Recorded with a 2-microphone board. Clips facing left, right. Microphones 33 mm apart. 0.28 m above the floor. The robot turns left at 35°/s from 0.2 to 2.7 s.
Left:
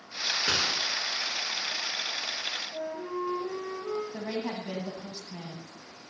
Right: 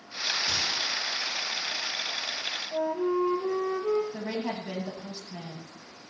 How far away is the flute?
About 1.4 m.